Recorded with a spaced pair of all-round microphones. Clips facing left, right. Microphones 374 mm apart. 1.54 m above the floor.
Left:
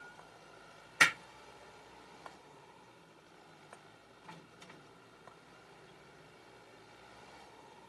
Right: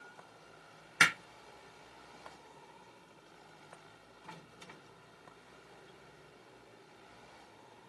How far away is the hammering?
About 0.7 m.